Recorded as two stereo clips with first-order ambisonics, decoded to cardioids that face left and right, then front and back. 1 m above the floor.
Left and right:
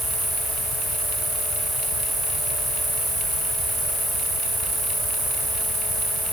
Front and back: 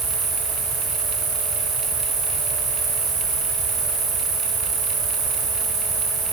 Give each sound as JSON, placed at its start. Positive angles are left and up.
{"t": 0.0, "sound": "an insect", "azimuth_deg": -160, "distance_m": 5.0}